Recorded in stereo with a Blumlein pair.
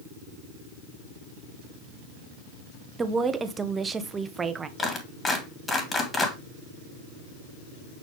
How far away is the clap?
About 2.5 m.